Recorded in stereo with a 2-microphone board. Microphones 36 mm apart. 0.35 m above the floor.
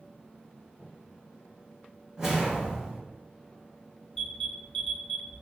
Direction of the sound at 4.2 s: 15° left (ahead or behind).